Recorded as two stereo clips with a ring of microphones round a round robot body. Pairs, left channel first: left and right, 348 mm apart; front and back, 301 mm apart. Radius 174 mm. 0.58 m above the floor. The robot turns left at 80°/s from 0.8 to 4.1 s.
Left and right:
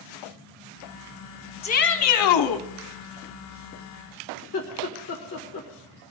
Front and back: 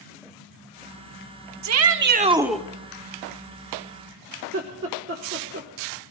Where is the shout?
160° left, 1.0 m; by 2.6 s 80° left, 1.0 m.